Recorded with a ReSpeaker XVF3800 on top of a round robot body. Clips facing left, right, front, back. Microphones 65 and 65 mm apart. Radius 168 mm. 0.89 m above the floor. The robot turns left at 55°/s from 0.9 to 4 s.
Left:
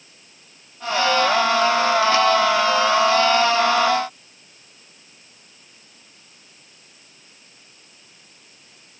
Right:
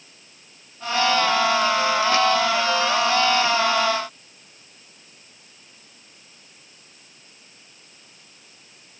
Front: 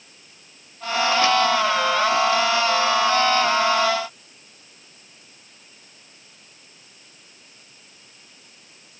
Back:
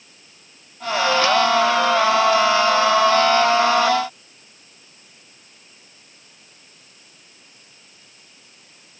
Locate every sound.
Only background noise.